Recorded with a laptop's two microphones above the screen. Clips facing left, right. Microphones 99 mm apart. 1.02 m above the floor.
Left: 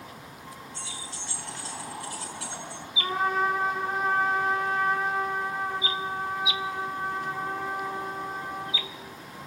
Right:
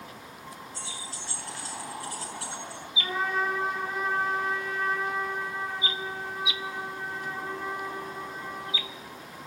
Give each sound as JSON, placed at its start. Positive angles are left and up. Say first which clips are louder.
{"t": 0.7, "sound": "keys jangling", "louder": "even", "side_deg": -40, "distance_m": 4.5}
{"t": 3.0, "sound": "a trumpet", "louder": "left 3 dB", "side_deg": 55, "distance_m": 2.5}